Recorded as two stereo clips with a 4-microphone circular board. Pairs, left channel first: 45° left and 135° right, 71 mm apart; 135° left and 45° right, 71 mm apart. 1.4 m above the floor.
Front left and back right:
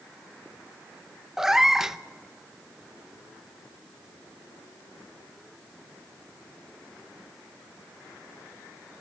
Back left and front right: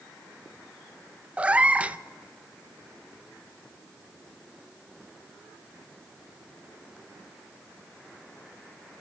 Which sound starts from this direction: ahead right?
A cat meowing, at 1.4 s.